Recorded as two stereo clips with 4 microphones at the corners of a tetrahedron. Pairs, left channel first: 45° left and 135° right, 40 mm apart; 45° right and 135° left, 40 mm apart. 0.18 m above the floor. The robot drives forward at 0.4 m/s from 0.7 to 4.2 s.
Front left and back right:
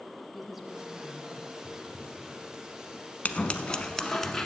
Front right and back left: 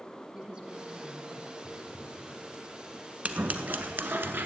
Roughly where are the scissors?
Left.